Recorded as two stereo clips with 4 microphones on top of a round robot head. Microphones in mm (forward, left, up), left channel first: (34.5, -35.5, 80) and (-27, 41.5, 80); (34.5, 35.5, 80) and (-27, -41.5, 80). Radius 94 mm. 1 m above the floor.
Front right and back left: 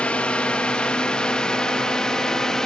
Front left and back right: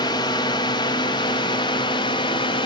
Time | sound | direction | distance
0.0 | a drone | 25° left | ?